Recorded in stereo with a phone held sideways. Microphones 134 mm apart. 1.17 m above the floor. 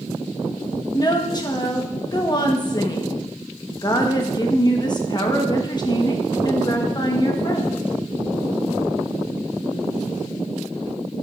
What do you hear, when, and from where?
0.9 s a woman speaking: 30° left (ahead or behind), 1.1 m